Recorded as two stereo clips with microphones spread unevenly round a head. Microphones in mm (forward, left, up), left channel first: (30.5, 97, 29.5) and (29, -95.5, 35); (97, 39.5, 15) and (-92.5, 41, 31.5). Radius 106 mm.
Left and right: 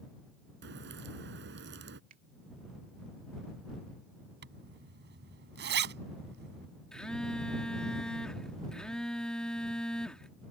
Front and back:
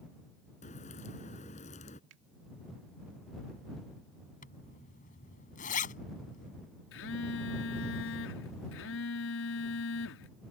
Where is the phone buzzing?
5° left.